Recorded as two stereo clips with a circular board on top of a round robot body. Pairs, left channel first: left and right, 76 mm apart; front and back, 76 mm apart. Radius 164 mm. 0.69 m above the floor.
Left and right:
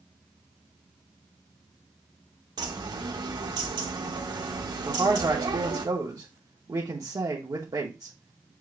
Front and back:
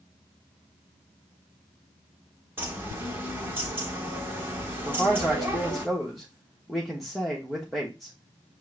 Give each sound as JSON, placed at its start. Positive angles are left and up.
{"t": 2.6, "sound": "a bird", "azimuth_deg": -115, "distance_m": 1.3}
{"t": 4.8, "sound": "a man speaking", "azimuth_deg": -90, "distance_m": 1.3}